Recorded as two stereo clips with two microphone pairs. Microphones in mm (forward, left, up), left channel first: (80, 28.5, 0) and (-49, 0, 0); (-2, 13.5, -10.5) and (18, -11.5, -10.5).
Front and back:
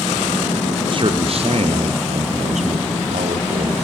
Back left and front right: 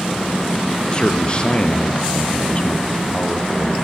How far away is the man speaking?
About 2 m.